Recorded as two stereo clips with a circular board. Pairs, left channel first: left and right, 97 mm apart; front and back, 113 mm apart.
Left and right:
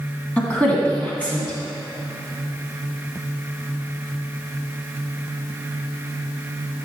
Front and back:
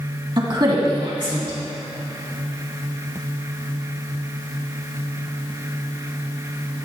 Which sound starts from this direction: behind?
A woman speaking, at 0.4 s.